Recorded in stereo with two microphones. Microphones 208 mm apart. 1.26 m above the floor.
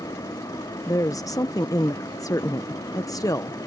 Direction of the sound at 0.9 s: 15° left (ahead or behind).